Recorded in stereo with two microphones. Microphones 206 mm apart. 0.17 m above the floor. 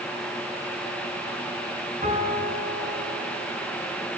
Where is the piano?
40° right (ahead or behind), 2 m.